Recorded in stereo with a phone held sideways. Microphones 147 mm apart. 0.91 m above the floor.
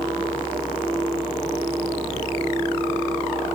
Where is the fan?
35° left (ahead or behind), 5 m.